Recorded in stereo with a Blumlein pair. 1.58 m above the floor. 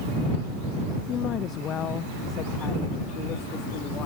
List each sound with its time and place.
1.1 s a woman speaking: 30° left